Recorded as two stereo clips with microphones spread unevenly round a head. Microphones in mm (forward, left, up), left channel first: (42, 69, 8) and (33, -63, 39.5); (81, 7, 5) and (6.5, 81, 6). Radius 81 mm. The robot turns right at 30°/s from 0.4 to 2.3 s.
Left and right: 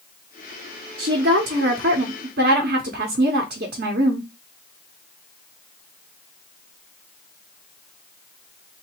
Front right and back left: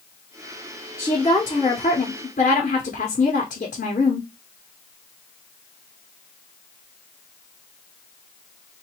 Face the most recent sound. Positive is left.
turn(degrees=-90)